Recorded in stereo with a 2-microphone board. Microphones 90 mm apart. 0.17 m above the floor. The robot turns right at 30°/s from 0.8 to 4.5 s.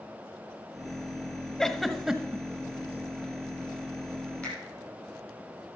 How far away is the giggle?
About 0.9 m.